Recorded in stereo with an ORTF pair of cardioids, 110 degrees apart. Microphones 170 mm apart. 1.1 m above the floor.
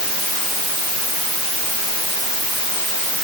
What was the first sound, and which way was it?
Only background noise.